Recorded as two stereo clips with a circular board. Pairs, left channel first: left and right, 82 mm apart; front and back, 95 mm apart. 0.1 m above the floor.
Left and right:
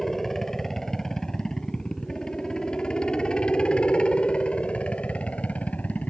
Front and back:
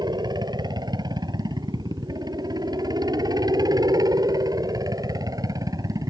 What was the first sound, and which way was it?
A helicopter, 175° left.